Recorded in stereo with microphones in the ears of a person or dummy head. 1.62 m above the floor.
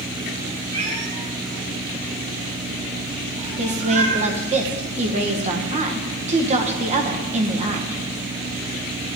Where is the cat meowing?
40° right (ahead or behind), 2 m; by 4.2 s 60° right (ahead or behind), 4 m.